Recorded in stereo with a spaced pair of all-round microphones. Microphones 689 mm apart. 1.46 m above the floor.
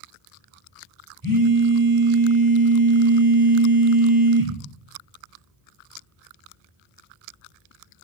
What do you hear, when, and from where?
1.2 s a phone buzzing: 45° right (ahead or behind), 1.8 m